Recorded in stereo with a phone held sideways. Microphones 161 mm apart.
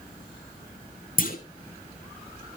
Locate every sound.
1.2 s a clunk: 55° left (ahead or behind), 2 m